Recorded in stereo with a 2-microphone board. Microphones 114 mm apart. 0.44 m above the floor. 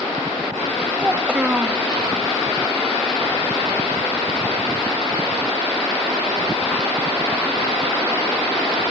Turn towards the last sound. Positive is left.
turn(degrees=-10)  # may be behind; listen again after turning